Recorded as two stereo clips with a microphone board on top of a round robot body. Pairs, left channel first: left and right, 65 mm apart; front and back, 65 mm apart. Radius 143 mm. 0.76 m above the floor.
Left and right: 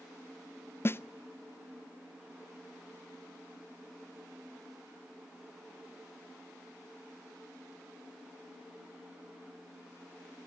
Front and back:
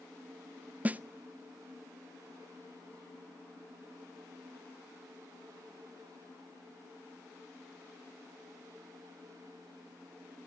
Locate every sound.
0.8 s a snare drum: 125° left, 0.7 m